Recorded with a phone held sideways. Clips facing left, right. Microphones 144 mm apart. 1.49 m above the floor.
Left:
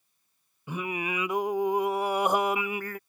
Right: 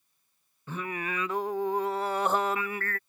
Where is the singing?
15° left (ahead or behind).